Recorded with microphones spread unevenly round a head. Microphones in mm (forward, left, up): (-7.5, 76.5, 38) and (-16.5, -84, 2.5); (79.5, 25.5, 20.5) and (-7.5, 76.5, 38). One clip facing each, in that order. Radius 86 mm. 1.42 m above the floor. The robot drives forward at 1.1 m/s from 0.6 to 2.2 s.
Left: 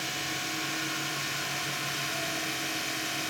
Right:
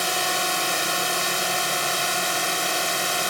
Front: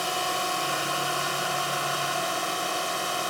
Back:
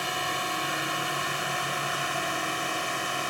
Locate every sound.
0.0 s a drone: 100° right; by 3.3 s 105° right